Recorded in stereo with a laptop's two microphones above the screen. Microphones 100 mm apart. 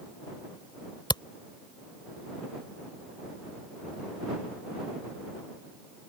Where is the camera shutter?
50° left (ahead or behind).